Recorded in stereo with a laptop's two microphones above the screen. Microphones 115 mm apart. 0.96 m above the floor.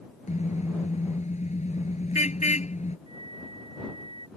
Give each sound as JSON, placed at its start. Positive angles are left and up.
{"t": 0.3, "sound": "a car horn", "side_deg": 80}
{"t": 3.1, "sound": "a flute", "side_deg": 60}